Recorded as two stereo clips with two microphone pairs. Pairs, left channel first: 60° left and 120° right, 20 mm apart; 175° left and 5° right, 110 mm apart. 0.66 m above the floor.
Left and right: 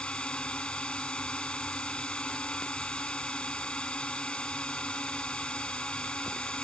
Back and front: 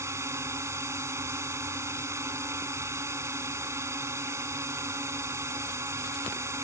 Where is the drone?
60° left.